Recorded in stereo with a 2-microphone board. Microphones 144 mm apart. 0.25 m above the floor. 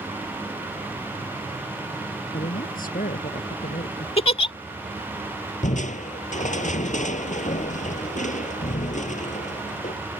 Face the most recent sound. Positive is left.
turn(degrees=60)  # may be behind; listen again after turning